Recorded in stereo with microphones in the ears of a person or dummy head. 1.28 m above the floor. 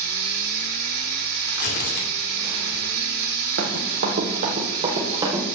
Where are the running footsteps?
55° right (ahead or behind), 2 m; by 5.4 s 5° right (ahead or behind), 2 m.